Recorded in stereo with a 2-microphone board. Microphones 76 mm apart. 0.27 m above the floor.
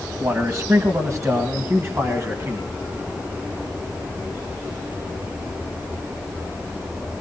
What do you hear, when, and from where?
0.2 s a man speaking: 45° right (ahead or behind), 2.0 m; by 2.7 s 35° right (ahead or behind), 2.5 m